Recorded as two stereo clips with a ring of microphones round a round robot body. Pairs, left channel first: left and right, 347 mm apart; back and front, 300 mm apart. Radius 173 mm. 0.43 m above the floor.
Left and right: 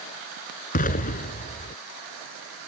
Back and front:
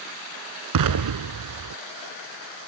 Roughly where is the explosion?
Ahead.